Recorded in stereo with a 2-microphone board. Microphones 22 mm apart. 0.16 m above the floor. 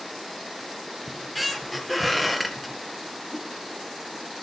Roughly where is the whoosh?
Left.